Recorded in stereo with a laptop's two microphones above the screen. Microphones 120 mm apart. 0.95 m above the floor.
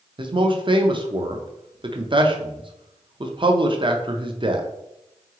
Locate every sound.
0.2 s a man speaking: 40° right (ahead or behind), 0.5 m